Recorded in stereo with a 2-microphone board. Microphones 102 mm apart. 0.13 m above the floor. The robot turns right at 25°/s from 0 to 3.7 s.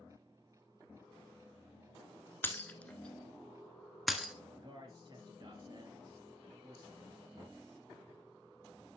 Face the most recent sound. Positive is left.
turn(degrees=-30)  # may be behind; listen again after turning